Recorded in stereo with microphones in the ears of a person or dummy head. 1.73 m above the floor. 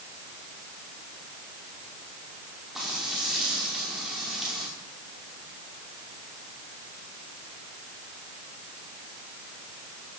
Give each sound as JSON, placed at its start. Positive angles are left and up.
{"t": 2.8, "sound": "frying", "side_deg": 0, "distance_m": 5.5}